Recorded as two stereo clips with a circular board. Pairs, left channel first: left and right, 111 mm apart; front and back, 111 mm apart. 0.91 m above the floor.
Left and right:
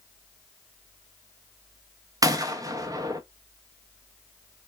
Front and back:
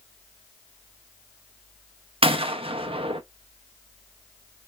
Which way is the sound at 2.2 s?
145° right.